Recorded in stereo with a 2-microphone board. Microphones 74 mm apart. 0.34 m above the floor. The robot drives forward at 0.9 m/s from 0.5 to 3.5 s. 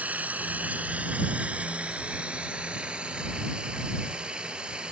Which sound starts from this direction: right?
Running water, at 0.0 s.